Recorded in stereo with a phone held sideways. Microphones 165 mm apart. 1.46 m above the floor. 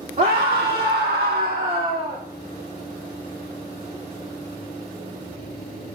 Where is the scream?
60° right (ahead or behind), 1.1 m; by 2.2 s 35° right (ahead or behind), 1.3 m.